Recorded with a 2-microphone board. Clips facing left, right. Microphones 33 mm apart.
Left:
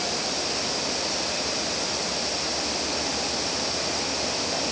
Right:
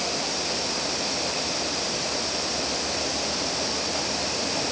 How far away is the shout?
I don't hear a shout.